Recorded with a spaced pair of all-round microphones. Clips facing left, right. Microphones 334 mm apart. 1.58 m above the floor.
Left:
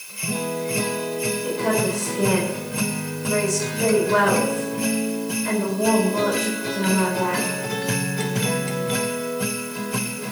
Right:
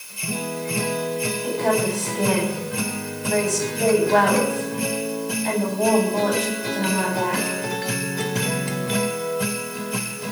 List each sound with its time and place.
1.4 s a woman speaking: 15° left (ahead or behind), 10 m